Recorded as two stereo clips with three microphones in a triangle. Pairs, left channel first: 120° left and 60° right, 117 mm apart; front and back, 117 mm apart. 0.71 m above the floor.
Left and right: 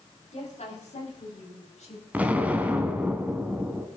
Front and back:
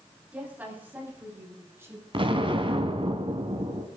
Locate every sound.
0.3 s a woman speaking: 105° left, 6 m; by 2.0 s 115° left, 4.5 m
2.1 s an explosion: 135° right, 1.7 m